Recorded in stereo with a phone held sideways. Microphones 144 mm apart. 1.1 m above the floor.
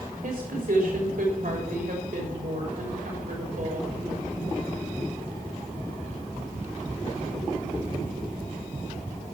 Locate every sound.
0.2 s a woman speaking: 75° right (ahead or behind), 3.5 m